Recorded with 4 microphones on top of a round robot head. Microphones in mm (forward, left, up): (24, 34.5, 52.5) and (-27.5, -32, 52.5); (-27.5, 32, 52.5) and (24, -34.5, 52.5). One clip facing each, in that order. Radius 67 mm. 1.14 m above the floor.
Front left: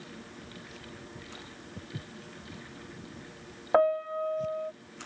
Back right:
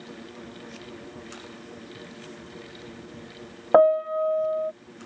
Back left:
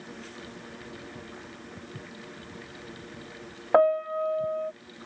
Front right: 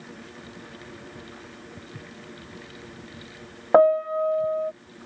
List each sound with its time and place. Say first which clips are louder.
1.8 s footsteps: back right 3 dB, even; 45° left; by 4.5 s 60° left
3.7 s a piano: back right 7 dB, front right 4 dB; 110° right